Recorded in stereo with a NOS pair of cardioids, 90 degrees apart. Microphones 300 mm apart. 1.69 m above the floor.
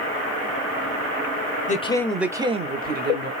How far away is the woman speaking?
About 0.6 m.